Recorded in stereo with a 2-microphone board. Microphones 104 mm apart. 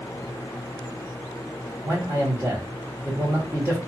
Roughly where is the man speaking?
Right.